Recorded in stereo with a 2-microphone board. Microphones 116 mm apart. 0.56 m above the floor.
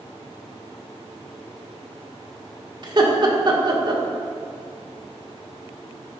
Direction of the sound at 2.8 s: 40° right (ahead or behind).